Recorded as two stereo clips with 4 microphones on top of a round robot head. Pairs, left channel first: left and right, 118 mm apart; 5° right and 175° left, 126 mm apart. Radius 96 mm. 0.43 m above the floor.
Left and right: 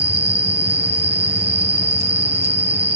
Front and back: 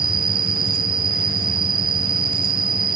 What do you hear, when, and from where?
0.0 s an insect: 130° right, 1.0 m